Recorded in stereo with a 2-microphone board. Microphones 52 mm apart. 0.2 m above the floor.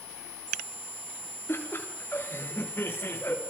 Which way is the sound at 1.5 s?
45° left (ahead or behind).